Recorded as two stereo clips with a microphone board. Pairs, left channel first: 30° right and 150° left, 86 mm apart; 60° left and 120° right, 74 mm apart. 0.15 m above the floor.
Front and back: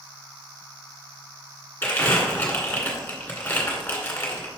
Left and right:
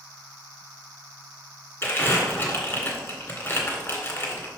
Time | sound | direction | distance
1.8 | crumpling | 25° left | 1.9 m